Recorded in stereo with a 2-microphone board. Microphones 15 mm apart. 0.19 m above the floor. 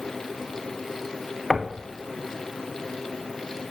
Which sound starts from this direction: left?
Knocking, at 1.5 s.